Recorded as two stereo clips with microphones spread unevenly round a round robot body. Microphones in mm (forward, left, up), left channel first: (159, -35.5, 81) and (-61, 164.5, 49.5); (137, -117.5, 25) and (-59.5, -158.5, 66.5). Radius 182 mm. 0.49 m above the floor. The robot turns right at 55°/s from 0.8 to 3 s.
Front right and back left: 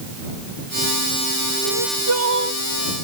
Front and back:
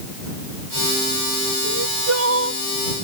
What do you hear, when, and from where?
1.6 s crying: 155° left; by 2.6 s 150° right